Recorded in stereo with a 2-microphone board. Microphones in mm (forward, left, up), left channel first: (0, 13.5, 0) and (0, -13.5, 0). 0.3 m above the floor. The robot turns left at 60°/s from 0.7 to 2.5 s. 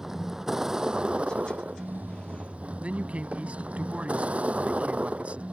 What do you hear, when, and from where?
0.0 s a vehicle: 15° right; by 5.5 s 120° right
2.8 s a man speaking: 55° right (ahead or behind)